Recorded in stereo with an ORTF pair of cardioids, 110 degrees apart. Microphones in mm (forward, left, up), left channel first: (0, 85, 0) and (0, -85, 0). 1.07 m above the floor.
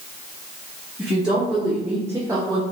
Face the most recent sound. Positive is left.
turn(degrees=-75)